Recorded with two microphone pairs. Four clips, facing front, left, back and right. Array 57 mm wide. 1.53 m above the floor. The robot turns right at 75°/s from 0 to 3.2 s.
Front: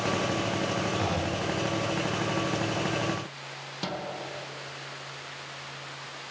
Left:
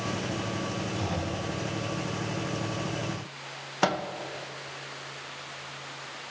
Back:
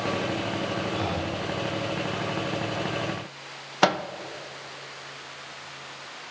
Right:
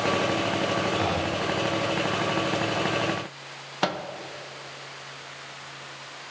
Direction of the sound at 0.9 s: 115° right.